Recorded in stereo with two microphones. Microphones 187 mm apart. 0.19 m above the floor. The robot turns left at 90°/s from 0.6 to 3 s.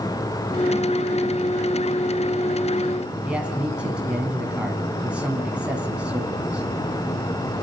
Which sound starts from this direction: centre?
A man speaking, at 3.2 s.